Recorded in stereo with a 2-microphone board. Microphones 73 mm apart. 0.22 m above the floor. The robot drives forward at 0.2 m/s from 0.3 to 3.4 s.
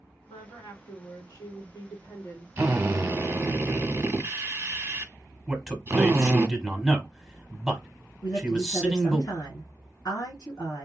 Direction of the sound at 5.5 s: Centre (ahead or behind).